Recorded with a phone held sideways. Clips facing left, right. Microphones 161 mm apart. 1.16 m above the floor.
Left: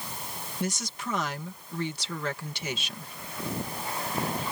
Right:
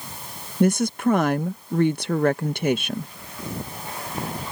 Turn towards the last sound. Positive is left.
turn(degrees=-55)  # may be behind; listen again after turning